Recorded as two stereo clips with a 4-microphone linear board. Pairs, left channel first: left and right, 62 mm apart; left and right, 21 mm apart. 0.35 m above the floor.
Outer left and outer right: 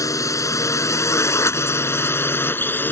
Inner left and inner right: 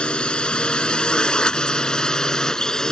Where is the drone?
60° left (ahead or behind); by 2.9 s 30° left (ahead or behind).